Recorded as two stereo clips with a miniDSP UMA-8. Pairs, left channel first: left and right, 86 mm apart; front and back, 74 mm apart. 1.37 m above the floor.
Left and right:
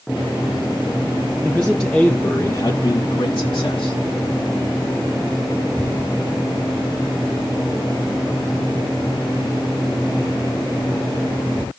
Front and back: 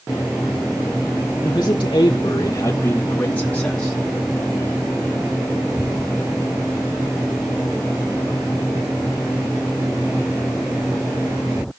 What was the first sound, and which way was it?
A man speaking, 15° right.